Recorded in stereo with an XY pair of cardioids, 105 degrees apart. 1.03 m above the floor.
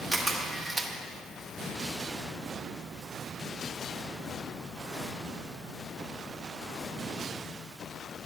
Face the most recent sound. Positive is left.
turn(degrees=-10)